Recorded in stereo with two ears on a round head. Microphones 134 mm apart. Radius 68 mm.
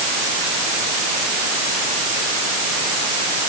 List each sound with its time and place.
Only background noise.